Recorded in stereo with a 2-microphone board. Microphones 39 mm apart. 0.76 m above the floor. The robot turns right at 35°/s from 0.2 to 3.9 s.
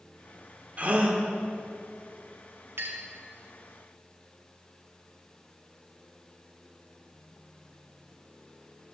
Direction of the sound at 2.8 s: 80° right.